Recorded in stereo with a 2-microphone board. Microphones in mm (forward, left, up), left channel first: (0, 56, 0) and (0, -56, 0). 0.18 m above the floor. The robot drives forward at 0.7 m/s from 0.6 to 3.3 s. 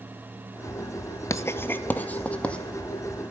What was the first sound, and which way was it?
Writing, 30° left (ahead or behind).